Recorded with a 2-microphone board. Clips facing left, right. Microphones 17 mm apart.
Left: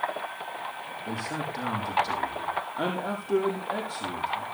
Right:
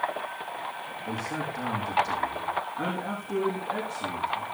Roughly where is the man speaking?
Left.